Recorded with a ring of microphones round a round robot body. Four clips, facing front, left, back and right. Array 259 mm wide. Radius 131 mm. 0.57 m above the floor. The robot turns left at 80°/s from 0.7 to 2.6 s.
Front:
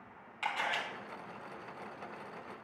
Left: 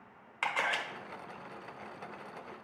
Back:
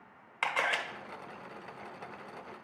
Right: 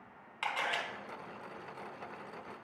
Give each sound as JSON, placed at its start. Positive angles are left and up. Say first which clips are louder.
{"t": 0.4, "sound": "a camera shutter", "louder": "left 2 dB, back 3 dB", "azimuth_deg": 160, "distance_m": 1.3}